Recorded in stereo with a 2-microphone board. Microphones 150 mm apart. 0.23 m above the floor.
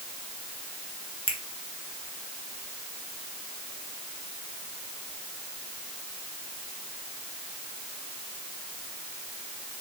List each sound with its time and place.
1.3 s a finger snap: 35° right (ahead or behind), 2 m